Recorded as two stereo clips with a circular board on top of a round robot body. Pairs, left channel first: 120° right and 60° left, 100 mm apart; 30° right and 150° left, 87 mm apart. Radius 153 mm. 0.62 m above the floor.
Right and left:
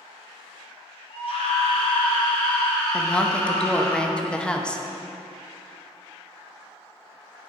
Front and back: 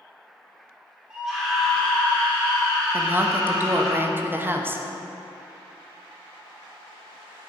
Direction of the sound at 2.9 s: 170° left.